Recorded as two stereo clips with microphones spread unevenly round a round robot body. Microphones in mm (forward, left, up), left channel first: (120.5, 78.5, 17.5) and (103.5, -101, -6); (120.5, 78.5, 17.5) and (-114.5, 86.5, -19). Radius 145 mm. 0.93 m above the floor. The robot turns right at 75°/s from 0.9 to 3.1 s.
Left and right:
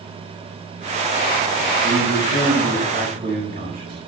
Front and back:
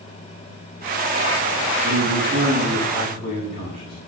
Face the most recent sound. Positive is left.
turn(degrees=-60)